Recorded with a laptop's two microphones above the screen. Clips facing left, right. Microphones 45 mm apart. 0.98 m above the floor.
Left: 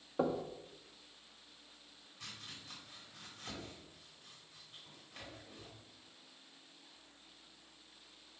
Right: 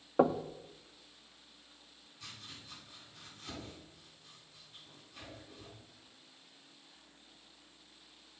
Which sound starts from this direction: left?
Chopping, at 2.2 s.